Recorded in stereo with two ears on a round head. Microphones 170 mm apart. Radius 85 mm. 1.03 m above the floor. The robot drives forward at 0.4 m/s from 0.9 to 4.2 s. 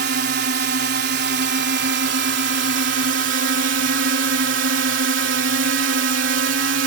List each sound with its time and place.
0.0 s a drone: 55° right (ahead or behind); by 6.9 s 70° right (ahead or behind)